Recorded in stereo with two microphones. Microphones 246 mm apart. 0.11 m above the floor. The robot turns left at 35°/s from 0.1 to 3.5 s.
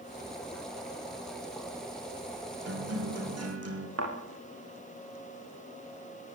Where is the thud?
70° right (ahead or behind), 9 m.